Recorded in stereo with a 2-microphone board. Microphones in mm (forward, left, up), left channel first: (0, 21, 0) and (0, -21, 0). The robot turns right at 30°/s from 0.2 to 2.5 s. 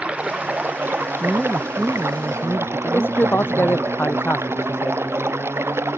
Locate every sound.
0.0 s running water: 150° right; by 6.0 s 80° right
1.2 s a woman speaking: 20° left; by 3.8 s 60° left
2.8 s a man speaking: 60° left (ahead or behind)